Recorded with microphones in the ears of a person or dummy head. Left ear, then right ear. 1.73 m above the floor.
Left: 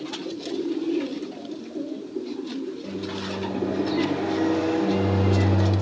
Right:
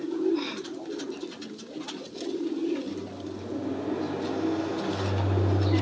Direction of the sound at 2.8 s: 55° left (ahead or behind).